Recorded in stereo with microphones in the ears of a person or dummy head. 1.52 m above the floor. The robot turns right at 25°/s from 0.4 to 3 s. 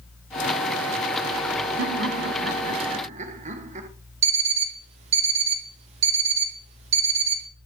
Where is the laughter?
70° right, 1.0 m; by 3.9 s 40° right, 1.0 m.